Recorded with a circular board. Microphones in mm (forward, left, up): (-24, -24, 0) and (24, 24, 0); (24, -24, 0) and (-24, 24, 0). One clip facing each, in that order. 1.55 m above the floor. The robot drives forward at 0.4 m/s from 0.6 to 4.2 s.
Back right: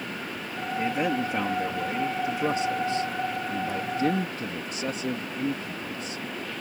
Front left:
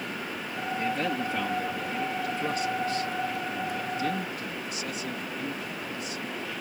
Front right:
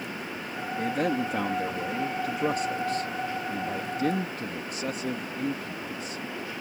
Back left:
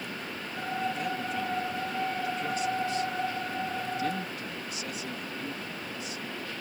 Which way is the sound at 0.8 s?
65° right.